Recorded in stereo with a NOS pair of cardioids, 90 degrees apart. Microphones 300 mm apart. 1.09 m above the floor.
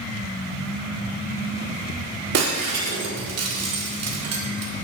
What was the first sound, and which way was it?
Breaking glass, 55° right.